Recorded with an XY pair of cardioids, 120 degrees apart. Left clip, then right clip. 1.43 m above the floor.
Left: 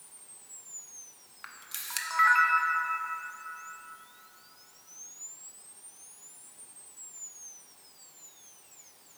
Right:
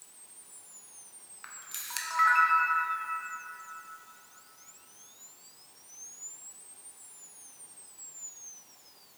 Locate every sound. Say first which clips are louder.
1.4 s a camera shutter: left 1 dB; 15° left, 0.6 m